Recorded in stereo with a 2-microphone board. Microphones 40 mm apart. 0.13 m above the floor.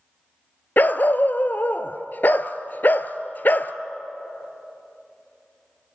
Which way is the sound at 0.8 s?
50° left (ahead or behind).